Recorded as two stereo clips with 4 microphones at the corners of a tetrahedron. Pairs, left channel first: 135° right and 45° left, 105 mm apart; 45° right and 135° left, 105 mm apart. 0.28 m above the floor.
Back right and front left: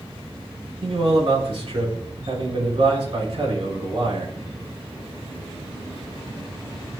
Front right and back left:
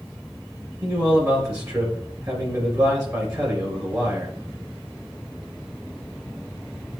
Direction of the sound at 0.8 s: 80° left.